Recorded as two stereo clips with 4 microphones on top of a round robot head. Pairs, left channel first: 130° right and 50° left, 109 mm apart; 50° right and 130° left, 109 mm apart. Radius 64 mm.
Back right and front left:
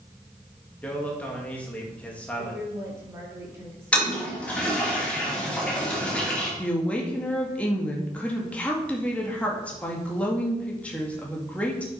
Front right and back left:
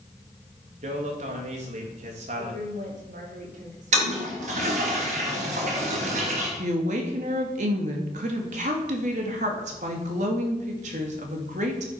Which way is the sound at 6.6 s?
155° left.